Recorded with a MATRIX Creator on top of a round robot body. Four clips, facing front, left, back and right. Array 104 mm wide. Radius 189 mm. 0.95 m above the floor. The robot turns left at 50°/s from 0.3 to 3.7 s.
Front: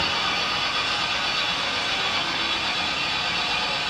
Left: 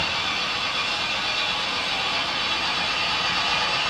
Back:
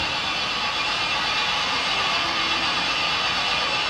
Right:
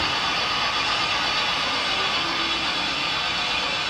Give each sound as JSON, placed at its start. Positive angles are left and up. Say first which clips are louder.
{"t": 0.0, "sound": "an engine running", "louder": "right 3 dB, front 1 dB", "azimuth_deg": -75, "distance_m": 1.3}